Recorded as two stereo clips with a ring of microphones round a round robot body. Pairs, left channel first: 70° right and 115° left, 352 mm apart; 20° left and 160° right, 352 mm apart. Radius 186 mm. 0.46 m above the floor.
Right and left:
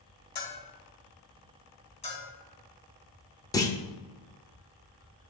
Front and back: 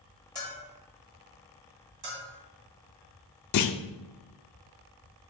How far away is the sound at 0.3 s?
About 2.5 m.